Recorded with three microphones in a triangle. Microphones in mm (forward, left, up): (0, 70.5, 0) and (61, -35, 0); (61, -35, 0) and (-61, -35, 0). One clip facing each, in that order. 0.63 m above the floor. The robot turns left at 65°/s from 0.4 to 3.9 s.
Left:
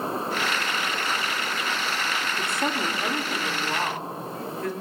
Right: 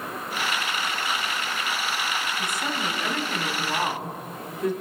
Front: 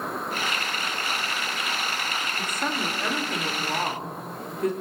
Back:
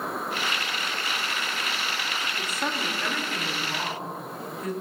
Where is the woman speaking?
110° left, 1.7 m; by 4.7 s 10° left, 1.7 m.